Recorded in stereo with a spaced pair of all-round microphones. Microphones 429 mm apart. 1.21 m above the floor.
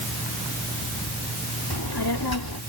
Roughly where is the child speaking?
Left.